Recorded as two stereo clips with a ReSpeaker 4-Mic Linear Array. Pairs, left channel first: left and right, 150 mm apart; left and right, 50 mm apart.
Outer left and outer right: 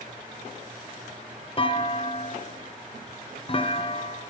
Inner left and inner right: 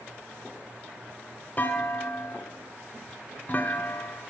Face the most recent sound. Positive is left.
turn(degrees=35)  # may be behind; listen again after turning